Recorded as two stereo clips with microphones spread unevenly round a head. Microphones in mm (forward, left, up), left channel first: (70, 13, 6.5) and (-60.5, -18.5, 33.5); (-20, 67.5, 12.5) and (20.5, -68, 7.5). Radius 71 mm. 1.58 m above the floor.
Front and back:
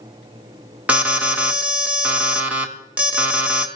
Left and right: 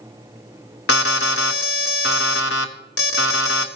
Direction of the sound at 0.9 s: 110° left.